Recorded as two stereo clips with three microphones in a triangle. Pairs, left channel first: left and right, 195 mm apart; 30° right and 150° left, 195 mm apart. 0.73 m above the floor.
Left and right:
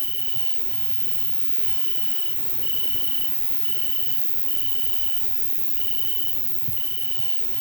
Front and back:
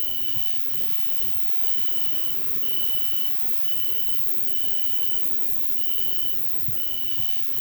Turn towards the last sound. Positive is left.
turn(degrees=-10)